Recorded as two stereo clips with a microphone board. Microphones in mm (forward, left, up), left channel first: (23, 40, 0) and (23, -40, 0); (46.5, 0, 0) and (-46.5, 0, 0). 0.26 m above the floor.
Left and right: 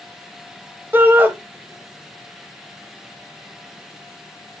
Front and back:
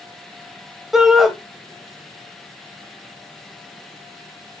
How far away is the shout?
About 1.1 m.